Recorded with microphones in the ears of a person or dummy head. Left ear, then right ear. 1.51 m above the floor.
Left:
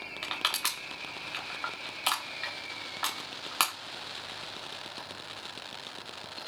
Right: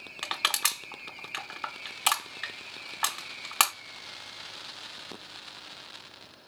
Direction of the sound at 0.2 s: 15° right (ahead or behind).